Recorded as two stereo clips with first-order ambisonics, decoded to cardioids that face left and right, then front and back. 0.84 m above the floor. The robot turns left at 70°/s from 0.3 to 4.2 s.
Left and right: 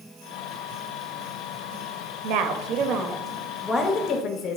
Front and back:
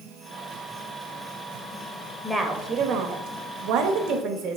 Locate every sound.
2.2 s a woman speaking: 85° right, 0.7 m; by 4.6 s 140° left, 0.7 m